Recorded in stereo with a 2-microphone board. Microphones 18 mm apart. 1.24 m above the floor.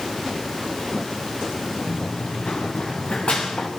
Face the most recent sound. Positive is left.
turn(degrees=65)  # may be behind; listen again after turning